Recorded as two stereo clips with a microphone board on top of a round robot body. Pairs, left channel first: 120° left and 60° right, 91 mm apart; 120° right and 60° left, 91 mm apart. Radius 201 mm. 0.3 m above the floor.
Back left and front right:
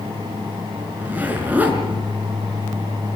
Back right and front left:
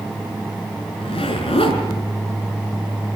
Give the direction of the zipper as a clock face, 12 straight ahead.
4 o'clock.